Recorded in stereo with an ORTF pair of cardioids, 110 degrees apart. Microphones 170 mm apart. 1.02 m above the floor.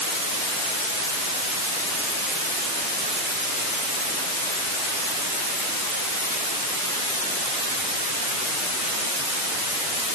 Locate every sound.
Only background noise.